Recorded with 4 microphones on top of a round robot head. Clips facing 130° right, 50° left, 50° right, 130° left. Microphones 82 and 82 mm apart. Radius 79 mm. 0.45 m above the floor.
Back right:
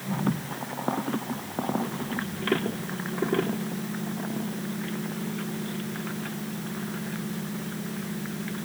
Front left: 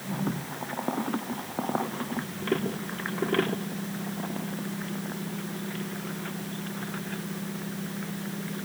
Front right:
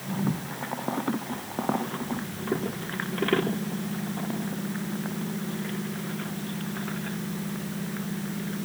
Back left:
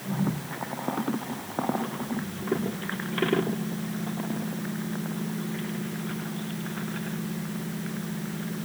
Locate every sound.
Only background noise.